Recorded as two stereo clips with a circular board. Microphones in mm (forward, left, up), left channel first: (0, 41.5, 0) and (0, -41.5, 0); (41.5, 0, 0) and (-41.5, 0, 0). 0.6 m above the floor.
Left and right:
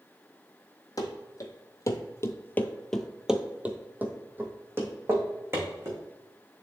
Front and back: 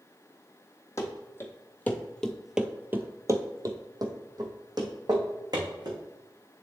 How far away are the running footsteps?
About 1.2 m.